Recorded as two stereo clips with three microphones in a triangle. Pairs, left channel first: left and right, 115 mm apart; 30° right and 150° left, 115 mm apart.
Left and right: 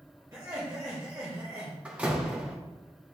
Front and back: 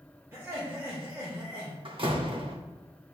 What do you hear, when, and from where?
0.3 s laughter: 145° right, 1.5 m
1.9 s a door slam: 170° right, 1.1 m